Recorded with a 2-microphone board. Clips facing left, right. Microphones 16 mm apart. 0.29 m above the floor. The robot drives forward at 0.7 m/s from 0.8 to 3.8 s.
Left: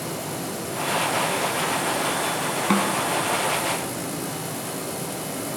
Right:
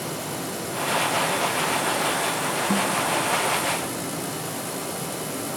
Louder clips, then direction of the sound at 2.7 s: Left 3 dB; 80° left.